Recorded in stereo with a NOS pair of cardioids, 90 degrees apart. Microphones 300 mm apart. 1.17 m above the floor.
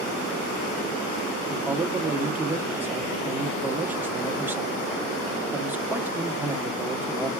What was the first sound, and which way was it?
A man speaking, 5° right.